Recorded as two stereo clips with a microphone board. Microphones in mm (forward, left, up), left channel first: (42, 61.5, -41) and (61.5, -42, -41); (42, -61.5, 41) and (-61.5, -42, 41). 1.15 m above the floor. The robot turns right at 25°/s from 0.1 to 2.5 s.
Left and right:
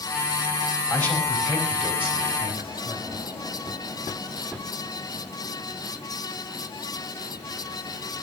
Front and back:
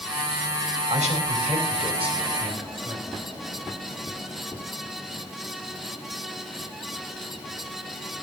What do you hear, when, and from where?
0.9 s a man speaking: 170° left, 5.5 m; by 3.2 s 150° right, 5.5 m